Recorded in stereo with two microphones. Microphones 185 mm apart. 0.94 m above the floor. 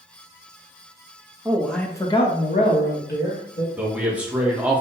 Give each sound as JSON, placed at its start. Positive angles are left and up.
{"t": 1.4, "sound": "a man speaking", "side_deg": -10, "distance_m": 0.7}
{"t": 3.8, "sound": "a man speaking", "side_deg": -5, "distance_m": 1.0}